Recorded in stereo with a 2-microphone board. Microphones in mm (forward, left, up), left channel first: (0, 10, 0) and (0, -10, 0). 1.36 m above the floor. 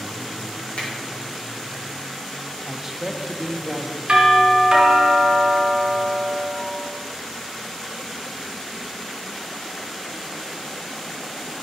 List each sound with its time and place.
0.8 s a finger snap: 70° left (ahead or behind), 2.5 m
2.7 s a man speaking: 10° right (ahead or behind), 0.6 m
4.1 s a doorbell: 50° right (ahead or behind), 2 m